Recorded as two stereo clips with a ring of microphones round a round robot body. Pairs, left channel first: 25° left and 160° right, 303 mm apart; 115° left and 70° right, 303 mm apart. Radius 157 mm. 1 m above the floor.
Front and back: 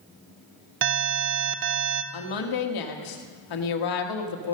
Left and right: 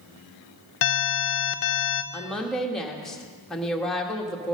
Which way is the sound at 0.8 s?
155° left.